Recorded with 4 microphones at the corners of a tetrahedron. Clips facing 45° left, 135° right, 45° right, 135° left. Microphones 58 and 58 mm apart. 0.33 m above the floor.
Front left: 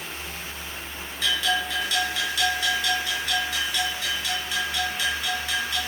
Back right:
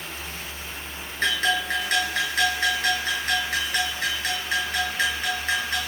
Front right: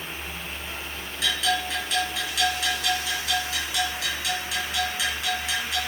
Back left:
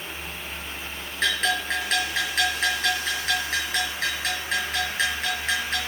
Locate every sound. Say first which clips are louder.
1.2 s a bell: back right 2 dB, back left 1 dB; 175° right, 5.5 m